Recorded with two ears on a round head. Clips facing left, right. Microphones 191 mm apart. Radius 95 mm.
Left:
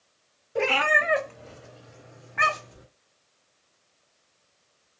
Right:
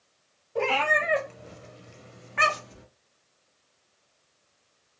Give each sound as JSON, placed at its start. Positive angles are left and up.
{"t": 0.6, "sound": "a cat meowing", "side_deg": 25, "distance_m": 0.8}